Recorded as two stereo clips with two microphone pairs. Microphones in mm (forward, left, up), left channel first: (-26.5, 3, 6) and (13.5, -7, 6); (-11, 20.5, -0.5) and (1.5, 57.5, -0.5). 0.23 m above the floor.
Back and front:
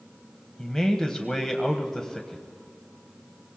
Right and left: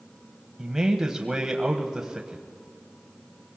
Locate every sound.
0.6 s a man speaking: 115° left, 1.0 m